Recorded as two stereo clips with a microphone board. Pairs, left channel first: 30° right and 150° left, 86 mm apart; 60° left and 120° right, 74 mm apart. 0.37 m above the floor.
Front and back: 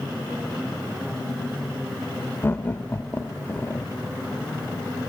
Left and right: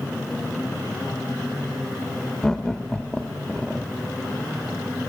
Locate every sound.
2.4 s laughter: 15° right, 1.0 m